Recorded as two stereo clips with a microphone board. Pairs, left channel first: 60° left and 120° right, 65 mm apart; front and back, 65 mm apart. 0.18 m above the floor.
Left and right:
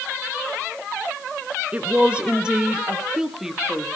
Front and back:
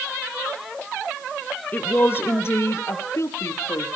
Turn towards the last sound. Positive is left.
turn(degrees=-35)